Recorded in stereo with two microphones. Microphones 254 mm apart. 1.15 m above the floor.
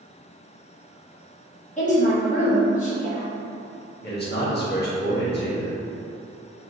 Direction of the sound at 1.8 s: 25° left (ahead or behind).